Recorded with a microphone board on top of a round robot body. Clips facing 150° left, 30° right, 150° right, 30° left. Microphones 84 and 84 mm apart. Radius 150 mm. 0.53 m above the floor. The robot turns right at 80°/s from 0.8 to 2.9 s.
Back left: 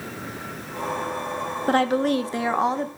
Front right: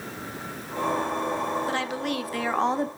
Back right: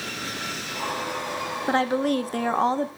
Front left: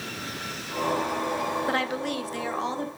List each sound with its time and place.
1.7 s a woman speaking: 155° left, 0.9 m; by 2.9 s 110° right, 0.9 m